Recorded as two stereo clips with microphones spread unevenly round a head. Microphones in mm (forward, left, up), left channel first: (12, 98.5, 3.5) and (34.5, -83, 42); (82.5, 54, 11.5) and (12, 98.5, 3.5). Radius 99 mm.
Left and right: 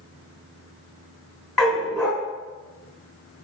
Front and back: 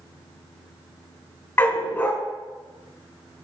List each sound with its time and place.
1.6 s a dog barking: 10° right, 1.4 m